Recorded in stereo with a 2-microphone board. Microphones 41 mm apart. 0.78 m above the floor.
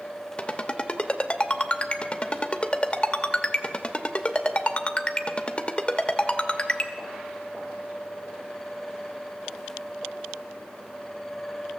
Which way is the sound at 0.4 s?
30° left (ahead or behind).